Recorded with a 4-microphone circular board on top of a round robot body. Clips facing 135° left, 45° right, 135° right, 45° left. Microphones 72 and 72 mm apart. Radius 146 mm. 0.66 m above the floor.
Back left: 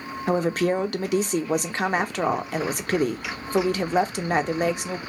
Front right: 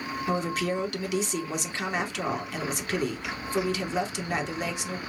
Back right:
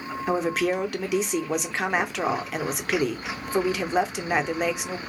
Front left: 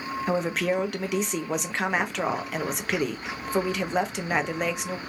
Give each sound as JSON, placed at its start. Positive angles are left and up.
{"t": 0.3, "sound": "a woman speaking", "azimuth_deg": 140, "distance_m": 0.9}